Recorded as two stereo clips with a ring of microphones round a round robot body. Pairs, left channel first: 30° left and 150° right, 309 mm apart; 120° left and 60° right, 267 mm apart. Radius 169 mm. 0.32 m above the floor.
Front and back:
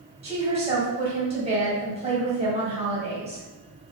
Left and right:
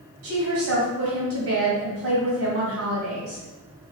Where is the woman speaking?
80° right, 1.6 m.